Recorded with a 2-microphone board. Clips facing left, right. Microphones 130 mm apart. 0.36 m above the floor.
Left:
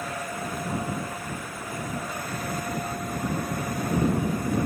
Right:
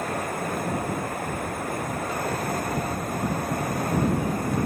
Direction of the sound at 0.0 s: 55° right (ahead or behind).